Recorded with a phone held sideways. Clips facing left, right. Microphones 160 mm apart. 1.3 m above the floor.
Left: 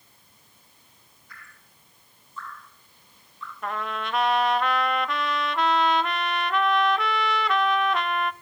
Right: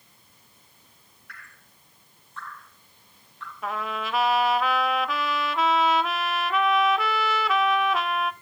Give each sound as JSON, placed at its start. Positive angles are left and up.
{"t": 1.3, "sound": "dripping", "side_deg": -75, "distance_m": 8.5}
{"t": 3.6, "sound": "a trumpet", "side_deg": -5, "distance_m": 0.7}